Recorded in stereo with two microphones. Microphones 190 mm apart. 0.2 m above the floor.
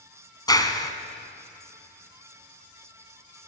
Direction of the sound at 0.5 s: 20° left (ahead or behind).